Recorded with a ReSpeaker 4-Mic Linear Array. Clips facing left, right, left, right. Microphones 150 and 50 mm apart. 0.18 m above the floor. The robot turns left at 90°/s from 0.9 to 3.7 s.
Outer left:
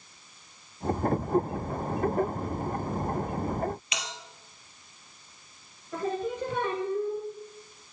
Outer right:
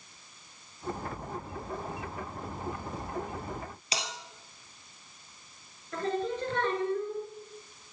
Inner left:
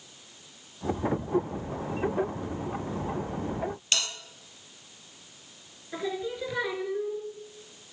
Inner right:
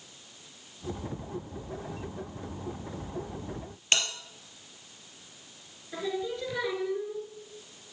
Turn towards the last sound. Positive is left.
turn(degrees=10)  # may be behind; listen again after turning